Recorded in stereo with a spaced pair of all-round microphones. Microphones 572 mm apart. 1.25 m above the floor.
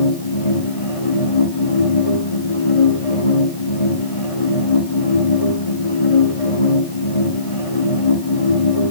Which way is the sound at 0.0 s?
65° left (ahead or behind).